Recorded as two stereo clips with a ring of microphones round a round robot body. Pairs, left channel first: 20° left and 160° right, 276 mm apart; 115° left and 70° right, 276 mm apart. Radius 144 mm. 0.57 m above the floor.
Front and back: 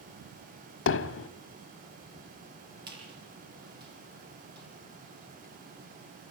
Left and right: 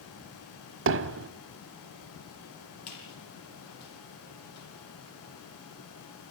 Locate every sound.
0.9 s hammering: 20° right, 1.0 m
2.9 s a squeak: 145° left, 7 m